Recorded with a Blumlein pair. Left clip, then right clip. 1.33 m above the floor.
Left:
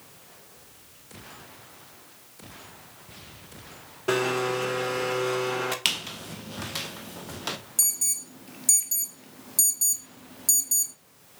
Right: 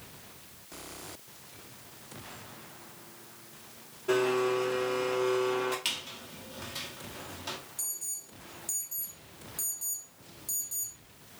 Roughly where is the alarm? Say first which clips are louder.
Left 12 dB; ahead left.